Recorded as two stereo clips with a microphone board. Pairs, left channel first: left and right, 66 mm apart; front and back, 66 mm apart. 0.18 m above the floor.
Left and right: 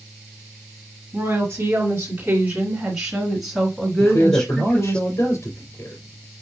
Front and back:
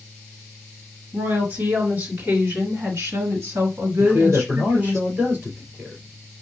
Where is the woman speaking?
130° right, 2 m; by 5.0 s 155° left, 1.9 m.